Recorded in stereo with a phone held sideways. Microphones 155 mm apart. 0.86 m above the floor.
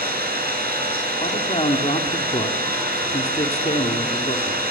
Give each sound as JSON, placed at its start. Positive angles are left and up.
{"t": 0.0, "sound": "an engine running", "side_deg": -85, "distance_m": 10.0}
{"t": 1.2, "sound": "a man speaking", "side_deg": 40, "distance_m": 2.5}